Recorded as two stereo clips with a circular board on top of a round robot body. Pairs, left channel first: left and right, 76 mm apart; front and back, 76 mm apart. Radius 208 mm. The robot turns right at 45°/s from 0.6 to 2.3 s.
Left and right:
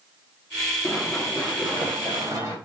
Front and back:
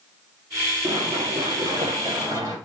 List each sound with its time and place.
0.8 s running footsteps: 165° left, 7 m; by 2.6 s 135° right, 9 m